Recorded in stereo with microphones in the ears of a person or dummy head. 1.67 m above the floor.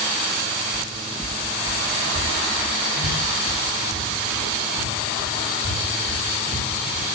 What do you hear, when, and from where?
0.7 s footsteps: 20° left (ahead or behind), 1.7 m; by 7.0 s 75° right (ahead or behind), 7 m